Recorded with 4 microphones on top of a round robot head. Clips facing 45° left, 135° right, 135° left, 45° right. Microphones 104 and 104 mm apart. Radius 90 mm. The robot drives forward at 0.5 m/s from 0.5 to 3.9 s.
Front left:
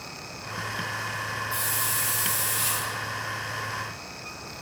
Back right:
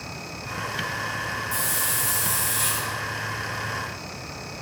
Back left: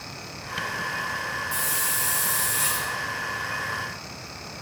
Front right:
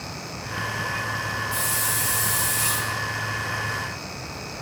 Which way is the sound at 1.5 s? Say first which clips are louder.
Back right 2 dB, front right 2 dB; 175° left.